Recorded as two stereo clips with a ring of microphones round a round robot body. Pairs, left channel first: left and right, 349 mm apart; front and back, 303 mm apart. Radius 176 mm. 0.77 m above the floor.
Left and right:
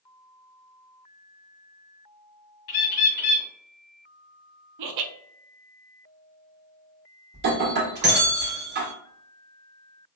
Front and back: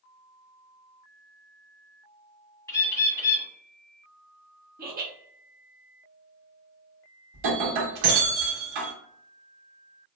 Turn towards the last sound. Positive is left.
turn(degrees=-155)